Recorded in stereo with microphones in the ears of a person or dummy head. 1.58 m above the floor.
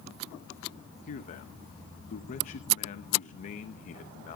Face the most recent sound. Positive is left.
turn(degrees=40)  # may be behind; listen again after turning